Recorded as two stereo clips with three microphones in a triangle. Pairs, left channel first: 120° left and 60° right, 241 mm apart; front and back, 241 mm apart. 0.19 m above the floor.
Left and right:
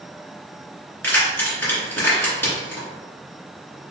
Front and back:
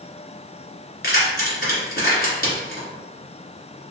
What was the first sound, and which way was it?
Keys jangling, 40° left.